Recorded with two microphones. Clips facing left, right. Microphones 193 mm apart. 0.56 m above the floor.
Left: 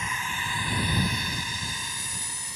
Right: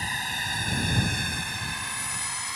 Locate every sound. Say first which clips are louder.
0.0 s a drone: left 1 dB; 35° right (ahead or behind); by 2.6 s 70° right (ahead or behind)